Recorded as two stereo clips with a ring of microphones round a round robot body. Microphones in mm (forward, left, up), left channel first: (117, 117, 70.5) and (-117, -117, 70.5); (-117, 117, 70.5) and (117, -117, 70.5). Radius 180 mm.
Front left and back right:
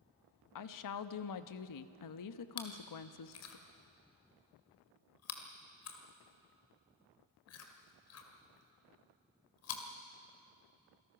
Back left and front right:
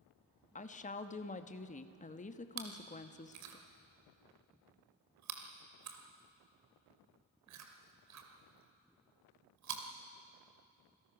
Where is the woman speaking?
70° left, 1.0 m.